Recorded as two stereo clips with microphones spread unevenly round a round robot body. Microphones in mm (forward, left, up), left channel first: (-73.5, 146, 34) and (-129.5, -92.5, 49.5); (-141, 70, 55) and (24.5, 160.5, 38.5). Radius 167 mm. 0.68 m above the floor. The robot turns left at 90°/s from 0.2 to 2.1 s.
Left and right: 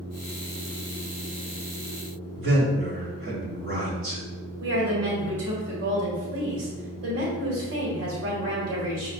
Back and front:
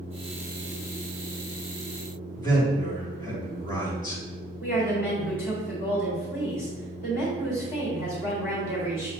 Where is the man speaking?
80° right, 1.8 m.